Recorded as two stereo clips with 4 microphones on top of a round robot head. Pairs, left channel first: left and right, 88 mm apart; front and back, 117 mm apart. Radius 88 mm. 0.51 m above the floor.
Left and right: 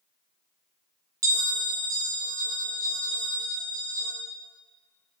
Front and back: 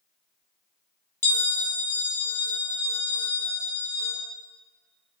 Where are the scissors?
No scissors in this recording.